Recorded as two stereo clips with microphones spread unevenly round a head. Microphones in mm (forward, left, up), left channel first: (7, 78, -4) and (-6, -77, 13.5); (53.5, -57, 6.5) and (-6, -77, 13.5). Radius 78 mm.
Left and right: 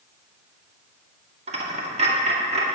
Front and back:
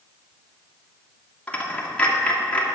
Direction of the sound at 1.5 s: 55° right.